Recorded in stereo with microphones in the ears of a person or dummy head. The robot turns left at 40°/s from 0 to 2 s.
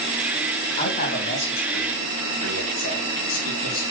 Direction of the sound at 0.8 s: 45° left (ahead or behind).